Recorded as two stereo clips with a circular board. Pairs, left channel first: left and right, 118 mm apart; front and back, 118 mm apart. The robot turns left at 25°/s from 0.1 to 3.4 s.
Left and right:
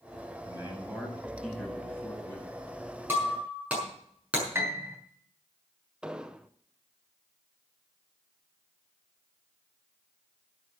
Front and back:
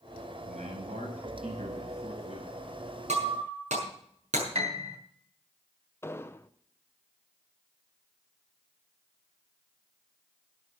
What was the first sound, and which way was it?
A man speaking, 155° right.